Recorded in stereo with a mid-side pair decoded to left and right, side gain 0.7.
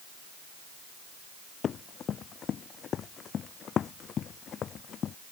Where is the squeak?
No squeak in this recording.